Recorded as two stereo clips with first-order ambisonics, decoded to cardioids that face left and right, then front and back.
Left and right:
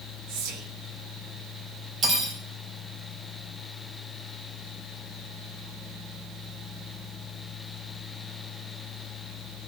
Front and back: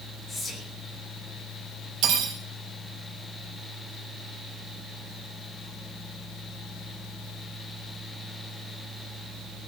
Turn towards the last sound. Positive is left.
turn(degrees=-150)